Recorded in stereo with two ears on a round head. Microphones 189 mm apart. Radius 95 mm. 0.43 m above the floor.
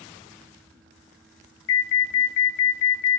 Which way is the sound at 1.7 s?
60° left (ahead or behind).